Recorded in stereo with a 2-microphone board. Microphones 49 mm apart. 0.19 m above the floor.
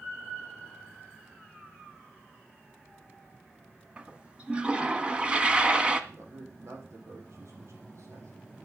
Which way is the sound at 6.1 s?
80° right.